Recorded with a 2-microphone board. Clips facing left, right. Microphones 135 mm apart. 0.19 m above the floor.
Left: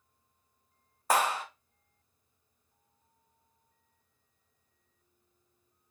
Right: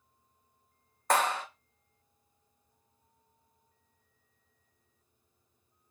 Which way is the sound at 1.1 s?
10° left (ahead or behind).